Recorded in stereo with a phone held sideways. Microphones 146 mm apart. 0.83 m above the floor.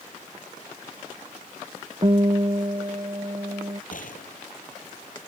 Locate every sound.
2.0 s a guitar: 40° right (ahead or behind)
3.9 s a gunshot: 65° left (ahead or behind)